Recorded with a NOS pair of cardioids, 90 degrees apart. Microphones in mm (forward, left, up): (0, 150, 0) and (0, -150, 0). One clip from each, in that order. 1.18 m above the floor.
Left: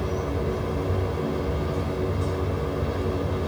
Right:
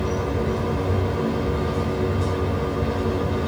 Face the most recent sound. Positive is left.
turn(degrees=-20)